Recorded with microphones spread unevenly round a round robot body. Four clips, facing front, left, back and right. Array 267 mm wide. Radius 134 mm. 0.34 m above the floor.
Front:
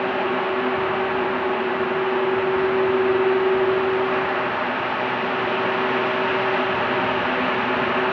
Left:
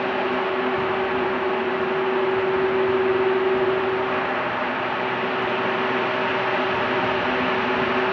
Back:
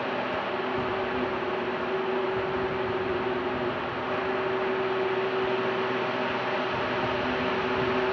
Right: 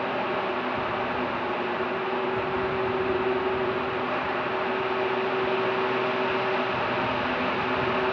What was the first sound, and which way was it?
Only background noise.